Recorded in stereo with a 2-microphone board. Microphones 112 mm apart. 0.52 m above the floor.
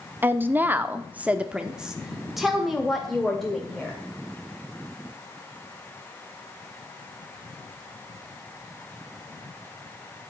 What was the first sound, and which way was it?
A woman speaking, 15° right (ahead or behind).